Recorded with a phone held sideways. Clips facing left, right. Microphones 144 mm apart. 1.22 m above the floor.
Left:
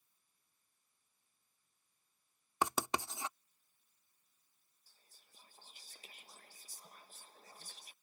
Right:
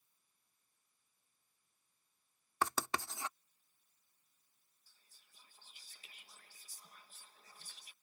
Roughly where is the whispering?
Left.